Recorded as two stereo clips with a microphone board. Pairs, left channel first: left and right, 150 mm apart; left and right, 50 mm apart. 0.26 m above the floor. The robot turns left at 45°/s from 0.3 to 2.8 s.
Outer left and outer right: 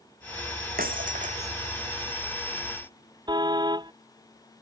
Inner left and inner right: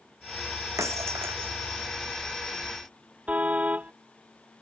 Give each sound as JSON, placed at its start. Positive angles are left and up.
{"t": 0.8, "sound": "breaking glass", "azimuth_deg": -100}
{"t": 3.3, "sound": "a car horn", "side_deg": -30}